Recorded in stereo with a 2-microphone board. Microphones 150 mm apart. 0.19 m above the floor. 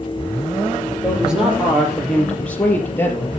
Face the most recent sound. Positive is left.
turn(degrees=20)  # may be behind; listen again after turning